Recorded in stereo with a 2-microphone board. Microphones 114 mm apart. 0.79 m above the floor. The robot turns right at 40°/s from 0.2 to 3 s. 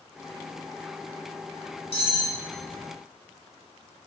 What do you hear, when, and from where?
1.9 s cutlery clinking: 55° left (ahead or behind), 1.1 m; by 2.3 s 35° left (ahead or behind), 1.1 m